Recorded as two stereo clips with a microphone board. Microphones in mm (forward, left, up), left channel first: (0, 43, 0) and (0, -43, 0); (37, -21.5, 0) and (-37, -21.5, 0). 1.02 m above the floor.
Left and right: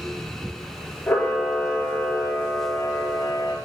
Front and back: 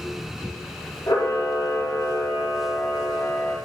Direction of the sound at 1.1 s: 20° left.